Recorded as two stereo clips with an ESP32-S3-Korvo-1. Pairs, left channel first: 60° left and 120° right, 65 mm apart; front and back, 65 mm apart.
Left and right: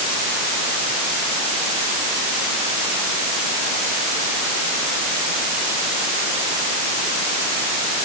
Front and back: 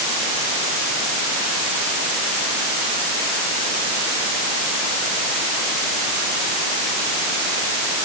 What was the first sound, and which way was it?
Only background noise.